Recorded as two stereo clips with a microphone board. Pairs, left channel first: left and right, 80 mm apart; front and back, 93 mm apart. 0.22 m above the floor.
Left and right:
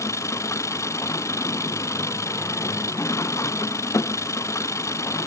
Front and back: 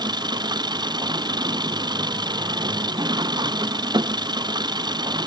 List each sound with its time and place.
0.0 s an engine running: 140° left